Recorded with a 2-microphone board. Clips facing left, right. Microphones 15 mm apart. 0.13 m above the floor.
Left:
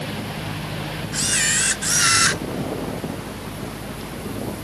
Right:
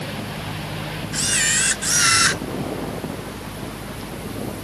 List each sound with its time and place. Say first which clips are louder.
1.1 s a camera shutter: right 1 dB; 5° right (ahead or behind)